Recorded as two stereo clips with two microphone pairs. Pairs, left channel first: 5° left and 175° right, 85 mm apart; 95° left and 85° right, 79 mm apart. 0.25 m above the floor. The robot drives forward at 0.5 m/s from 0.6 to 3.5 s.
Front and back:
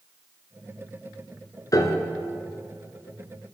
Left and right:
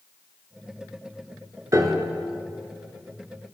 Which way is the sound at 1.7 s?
40° right.